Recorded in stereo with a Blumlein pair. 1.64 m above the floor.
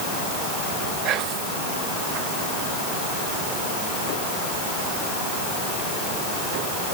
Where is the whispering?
35° right, 2 m.